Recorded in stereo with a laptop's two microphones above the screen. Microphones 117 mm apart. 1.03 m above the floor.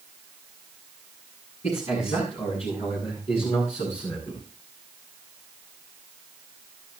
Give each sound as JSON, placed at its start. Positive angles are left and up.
{"t": 1.6, "sound": "a man speaking", "side_deg": 70, "distance_m": 9.0}